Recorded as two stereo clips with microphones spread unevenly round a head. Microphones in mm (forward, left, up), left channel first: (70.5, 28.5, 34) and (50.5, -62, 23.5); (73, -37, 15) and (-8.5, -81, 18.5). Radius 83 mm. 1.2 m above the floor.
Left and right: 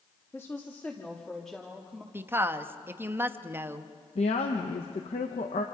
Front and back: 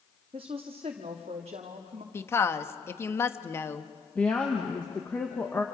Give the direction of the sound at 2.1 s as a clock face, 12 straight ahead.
1 o'clock.